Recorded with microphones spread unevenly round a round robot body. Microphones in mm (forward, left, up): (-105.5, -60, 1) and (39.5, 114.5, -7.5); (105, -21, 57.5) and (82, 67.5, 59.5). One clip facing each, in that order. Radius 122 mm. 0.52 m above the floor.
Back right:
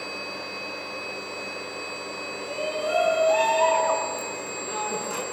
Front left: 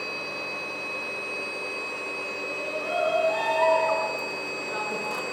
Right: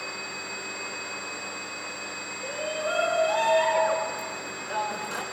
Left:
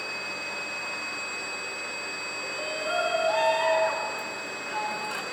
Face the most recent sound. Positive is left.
turn(degrees=175)